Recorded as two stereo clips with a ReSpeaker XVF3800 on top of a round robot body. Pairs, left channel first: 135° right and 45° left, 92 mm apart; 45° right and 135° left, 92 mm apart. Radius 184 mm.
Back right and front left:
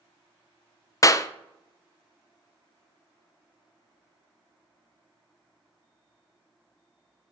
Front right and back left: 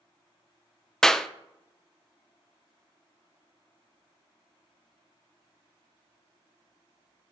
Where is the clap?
125° right, 0.6 m.